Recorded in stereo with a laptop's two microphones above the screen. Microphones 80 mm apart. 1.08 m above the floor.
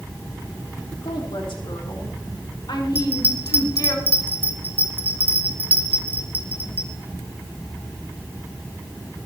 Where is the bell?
20° right (ahead or behind), 2 m.